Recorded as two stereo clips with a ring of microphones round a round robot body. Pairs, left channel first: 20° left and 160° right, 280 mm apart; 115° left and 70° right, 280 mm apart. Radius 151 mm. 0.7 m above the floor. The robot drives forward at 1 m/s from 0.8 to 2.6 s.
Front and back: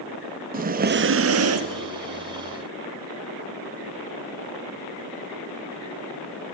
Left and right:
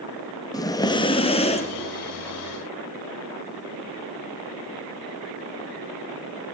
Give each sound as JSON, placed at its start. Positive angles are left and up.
{"t": 0.5, "sound": "breathing", "azimuth_deg": 180, "distance_m": 0.7}